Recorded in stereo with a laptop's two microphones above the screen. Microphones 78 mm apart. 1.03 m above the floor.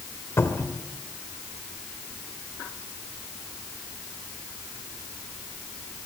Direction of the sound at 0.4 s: 35° left (ahead or behind).